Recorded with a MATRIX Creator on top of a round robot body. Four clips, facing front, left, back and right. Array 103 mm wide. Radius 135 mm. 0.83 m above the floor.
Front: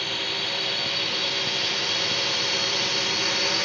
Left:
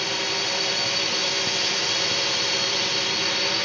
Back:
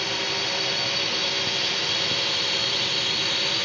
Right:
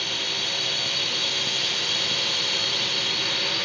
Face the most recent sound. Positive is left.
turn(degrees=40)